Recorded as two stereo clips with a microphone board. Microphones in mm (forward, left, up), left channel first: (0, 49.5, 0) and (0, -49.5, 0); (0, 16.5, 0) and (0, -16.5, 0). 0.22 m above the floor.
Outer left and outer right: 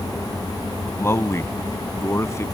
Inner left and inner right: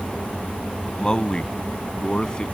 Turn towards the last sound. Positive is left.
turn(degrees=30)  # may be behind; listen again after turning